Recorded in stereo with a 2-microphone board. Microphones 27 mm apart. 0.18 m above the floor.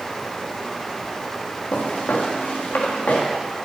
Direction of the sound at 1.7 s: 85° left.